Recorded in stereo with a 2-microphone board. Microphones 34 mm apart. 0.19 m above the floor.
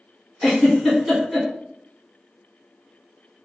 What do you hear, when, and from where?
0.4 s a giggle: 5° right (ahead or behind), 1.7 m